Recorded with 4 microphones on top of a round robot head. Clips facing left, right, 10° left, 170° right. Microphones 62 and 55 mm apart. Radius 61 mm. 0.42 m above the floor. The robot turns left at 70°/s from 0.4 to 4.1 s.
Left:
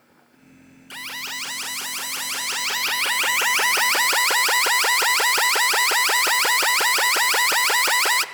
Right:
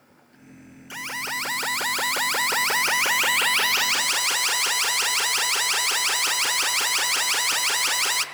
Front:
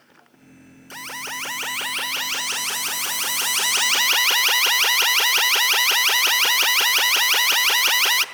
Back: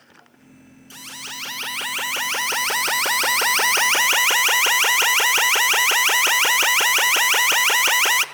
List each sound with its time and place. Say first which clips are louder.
0.9 s an alarm: right 3 dB, front 5 dB; 10° right, 1.1 m; by 8.2 s 125° left, 1.1 m